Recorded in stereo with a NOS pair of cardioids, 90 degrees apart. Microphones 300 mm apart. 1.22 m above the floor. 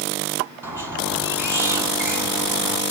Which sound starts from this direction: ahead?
A squeak, at 0.6 s.